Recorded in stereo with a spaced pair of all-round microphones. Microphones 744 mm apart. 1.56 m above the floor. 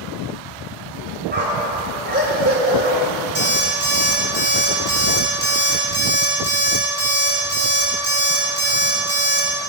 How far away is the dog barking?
About 3 m.